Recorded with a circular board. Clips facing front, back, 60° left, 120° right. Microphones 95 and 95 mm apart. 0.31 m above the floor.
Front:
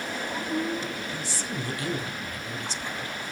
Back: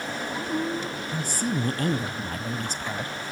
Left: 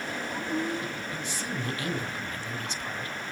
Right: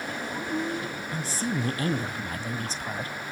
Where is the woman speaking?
160° right, 1.8 m.